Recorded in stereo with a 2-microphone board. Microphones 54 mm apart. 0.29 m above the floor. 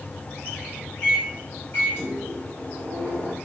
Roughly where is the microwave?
Left.